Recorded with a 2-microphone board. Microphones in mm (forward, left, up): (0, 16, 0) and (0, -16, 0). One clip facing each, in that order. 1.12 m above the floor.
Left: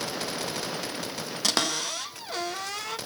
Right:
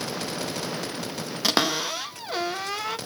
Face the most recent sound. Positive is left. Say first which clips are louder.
# right 4 dB
turn(degrees=-10)  # may be behind; listen again after turning